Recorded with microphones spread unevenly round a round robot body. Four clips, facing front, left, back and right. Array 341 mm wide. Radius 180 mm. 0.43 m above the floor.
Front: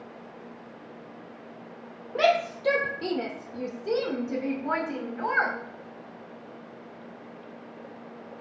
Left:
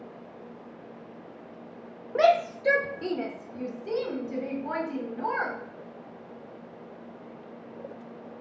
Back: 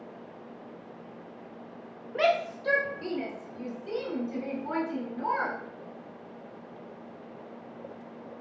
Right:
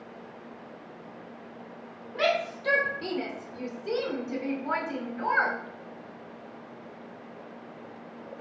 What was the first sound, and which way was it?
A shout, 60° left.